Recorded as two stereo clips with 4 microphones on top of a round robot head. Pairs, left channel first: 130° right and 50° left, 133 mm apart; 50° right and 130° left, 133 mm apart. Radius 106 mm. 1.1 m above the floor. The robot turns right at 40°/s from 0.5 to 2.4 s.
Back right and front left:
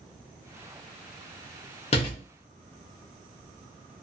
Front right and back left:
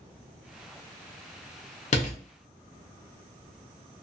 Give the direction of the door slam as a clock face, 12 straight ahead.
3 o'clock.